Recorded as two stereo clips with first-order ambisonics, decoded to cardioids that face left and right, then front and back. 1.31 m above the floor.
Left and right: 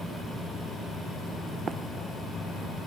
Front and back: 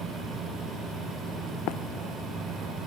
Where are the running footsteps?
25° right.